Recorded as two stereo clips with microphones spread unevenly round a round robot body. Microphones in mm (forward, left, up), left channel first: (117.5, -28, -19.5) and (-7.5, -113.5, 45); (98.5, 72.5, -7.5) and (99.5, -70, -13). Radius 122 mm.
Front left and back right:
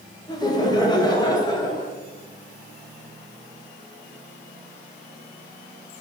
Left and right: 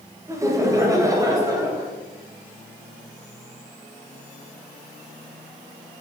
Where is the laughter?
20° right, 2.5 m; by 1.9 s 25° right, 4 m.